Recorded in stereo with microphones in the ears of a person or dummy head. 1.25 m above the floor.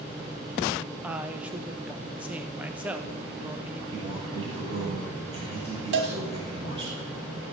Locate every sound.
1.0 s a woman speaking: 5° right (ahead or behind), 1.2 m
3.9 s a man speaking: 30° right (ahead or behind), 6 m
5.9 s a cowbell: 50° right (ahead or behind), 1.8 m